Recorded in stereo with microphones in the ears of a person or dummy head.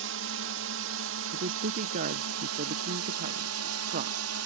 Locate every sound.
0.0 s a drone: 65° right (ahead or behind); by 4.5 s 75° right (ahead or behind)
1.3 s a woman speaking: 45° right (ahead or behind)